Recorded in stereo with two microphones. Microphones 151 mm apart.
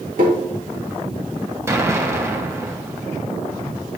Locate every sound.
0.2 s tapping: 65° right (ahead or behind), 2 m
1.7 s an explosion: 20° right (ahead or behind), 0.8 m